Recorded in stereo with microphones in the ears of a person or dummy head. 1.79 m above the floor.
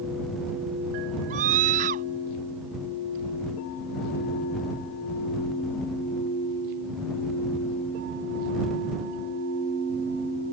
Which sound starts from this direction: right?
A scream, at 1.3 s.